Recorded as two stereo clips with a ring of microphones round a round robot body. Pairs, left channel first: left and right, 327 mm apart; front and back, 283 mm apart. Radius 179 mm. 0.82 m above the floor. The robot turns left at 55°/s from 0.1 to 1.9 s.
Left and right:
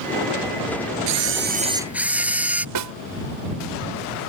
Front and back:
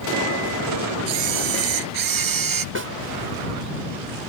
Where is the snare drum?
125° right.